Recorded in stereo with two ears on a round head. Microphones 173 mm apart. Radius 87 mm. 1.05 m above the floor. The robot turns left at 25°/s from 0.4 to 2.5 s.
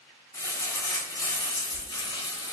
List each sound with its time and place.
0.3 s crumpling: 15° left (ahead or behind), 0.8 m; by 2.5 s 20° left (ahead or behind), 0.8 m